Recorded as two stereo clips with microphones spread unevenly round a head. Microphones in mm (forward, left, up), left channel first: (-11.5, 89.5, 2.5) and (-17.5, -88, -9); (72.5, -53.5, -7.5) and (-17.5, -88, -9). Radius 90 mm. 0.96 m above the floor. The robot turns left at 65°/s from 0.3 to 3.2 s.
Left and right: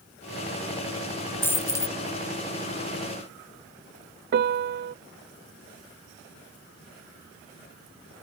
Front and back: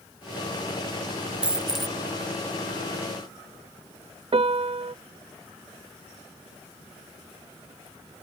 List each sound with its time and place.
1.4 s a dropped coin: 140° left; by 2.0 s 105° left
4.3 s a piano: 125° right